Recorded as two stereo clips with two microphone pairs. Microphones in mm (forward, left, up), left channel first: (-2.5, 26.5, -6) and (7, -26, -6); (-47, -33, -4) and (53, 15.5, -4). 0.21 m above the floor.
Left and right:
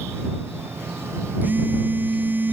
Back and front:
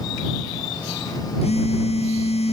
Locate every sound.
1.4 s a phone buzzing: 135° right